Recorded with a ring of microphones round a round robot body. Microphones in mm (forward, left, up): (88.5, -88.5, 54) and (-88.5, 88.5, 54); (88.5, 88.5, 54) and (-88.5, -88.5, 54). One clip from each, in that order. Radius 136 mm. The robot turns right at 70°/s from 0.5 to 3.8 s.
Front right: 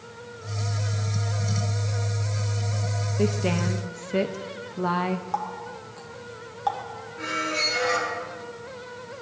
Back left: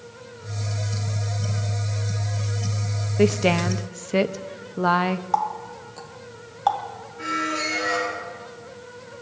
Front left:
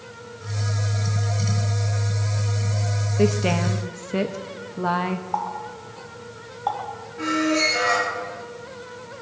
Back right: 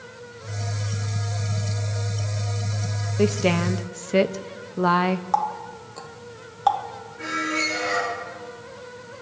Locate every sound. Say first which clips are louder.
3.2 s a woman speaking: back left 7 dB, even; 140° left, 0.6 m; by 5.2 s 175° right, 0.6 m
5.3 s a running tap: back left 6 dB, back right 3 dB; 155° right, 1.6 m
7.2 s a squeak: even, front left 4 dB; 10° left, 7 m